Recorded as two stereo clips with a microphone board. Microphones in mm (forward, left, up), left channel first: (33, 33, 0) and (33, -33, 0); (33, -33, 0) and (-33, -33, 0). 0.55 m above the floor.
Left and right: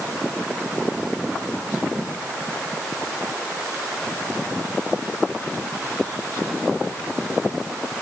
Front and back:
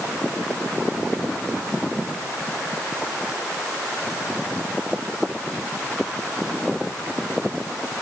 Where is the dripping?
No dripping in this recording.